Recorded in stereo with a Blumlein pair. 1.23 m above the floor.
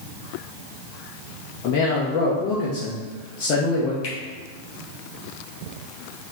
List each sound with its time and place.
1.6 s a man speaking: 40° left, 0.8 m
4.0 s a finger snap: 45° left, 1.5 m